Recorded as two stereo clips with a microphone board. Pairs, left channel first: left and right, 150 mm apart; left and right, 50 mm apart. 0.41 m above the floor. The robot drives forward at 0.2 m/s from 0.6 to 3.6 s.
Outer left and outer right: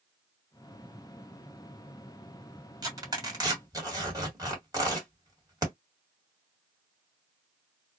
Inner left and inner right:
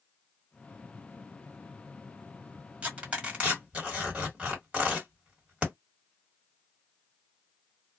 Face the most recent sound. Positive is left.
turn(degrees=-25)  # may be behind; listen again after turning